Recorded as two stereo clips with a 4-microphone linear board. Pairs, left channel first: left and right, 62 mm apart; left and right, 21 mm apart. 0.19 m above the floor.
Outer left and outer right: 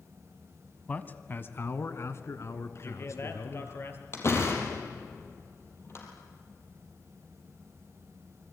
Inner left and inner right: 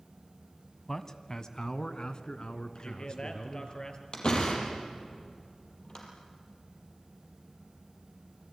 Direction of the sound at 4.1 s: 45° left (ahead or behind).